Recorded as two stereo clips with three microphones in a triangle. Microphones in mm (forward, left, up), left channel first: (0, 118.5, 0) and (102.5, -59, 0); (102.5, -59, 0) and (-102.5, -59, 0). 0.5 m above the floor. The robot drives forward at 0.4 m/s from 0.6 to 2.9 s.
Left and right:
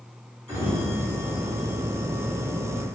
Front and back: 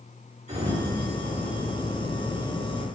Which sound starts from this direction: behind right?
A sliding door, at 0.5 s.